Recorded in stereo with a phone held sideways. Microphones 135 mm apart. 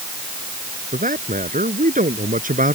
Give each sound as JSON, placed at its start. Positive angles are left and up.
{"t": 0.9, "sound": "a man speaking", "side_deg": -85}